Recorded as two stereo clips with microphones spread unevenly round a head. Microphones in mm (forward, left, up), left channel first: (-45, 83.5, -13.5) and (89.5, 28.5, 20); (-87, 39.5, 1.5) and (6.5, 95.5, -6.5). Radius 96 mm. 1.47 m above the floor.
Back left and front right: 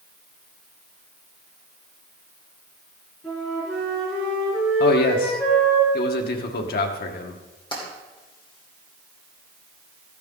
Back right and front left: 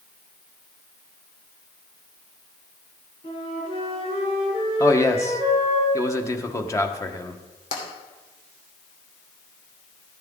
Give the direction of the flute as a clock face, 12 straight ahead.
4 o'clock.